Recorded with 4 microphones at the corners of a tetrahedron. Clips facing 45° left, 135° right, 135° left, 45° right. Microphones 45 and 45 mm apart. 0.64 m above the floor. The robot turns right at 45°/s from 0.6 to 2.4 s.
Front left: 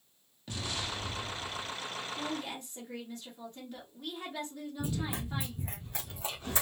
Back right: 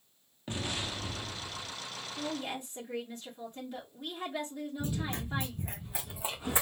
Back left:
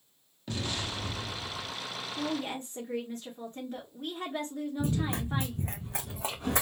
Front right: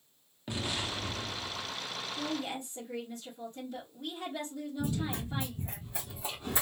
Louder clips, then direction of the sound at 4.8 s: Front left 2 dB, back left 2 dB; 115° left.